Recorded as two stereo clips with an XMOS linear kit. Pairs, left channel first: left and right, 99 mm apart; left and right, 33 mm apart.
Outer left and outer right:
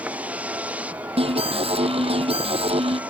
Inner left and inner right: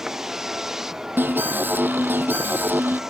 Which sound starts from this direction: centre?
A vehicle, at 0.0 s.